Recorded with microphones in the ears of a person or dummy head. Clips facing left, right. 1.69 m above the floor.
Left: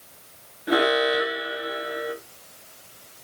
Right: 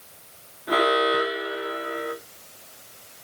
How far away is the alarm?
About 2 m.